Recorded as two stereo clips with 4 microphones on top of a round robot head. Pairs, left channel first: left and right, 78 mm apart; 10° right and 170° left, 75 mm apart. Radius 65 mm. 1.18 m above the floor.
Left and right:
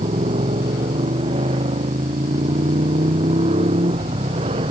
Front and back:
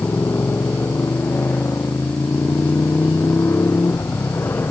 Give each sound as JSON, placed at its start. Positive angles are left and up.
{"t": 0.0, "sound": "a motorcycle", "azimuth_deg": -80}